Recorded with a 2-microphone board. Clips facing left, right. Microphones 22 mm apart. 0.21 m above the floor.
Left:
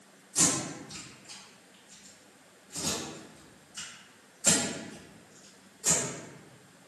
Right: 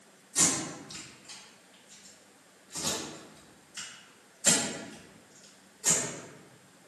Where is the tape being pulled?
35° right (ahead or behind), 1.9 m.